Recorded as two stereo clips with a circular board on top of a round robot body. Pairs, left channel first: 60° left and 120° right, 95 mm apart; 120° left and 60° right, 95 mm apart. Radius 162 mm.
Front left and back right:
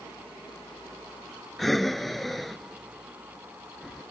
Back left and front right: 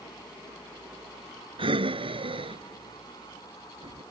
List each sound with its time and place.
1.6 s breathing: 30° right